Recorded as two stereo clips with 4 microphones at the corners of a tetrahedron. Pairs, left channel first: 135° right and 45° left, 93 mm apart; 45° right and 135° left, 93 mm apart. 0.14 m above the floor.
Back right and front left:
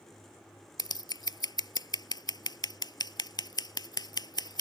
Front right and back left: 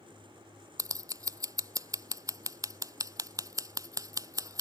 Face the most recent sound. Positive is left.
turn(degrees=-175)